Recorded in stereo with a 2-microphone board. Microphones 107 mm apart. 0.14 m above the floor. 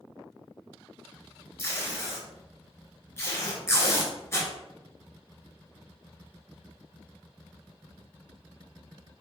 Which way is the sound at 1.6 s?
25° left (ahead or behind).